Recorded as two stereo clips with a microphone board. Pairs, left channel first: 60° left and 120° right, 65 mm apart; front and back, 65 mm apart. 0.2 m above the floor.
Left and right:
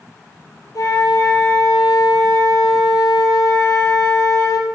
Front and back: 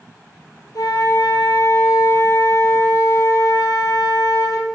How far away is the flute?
About 3 m.